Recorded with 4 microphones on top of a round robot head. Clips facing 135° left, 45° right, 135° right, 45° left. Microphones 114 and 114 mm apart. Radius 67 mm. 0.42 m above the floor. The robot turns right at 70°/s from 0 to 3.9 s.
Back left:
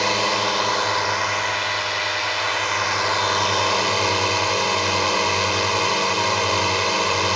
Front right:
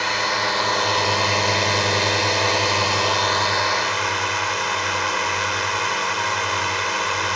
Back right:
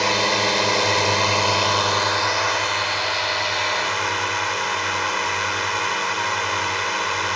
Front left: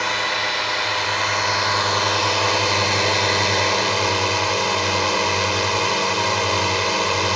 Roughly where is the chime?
No chime in this recording.